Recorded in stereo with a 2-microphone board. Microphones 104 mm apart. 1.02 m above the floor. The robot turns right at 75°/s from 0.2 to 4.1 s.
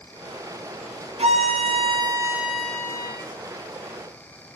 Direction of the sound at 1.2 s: 105° right.